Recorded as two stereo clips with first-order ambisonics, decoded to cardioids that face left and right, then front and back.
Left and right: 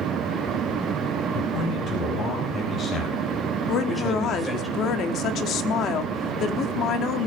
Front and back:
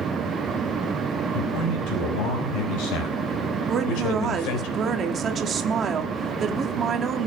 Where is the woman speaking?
125° left, 1.4 m.